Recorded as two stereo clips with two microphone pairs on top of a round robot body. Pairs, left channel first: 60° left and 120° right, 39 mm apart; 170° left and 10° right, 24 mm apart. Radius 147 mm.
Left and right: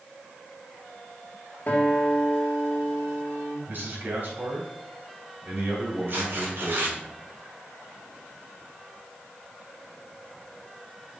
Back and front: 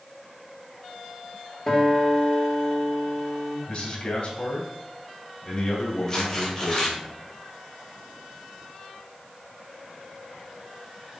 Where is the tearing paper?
125° right, 3 m.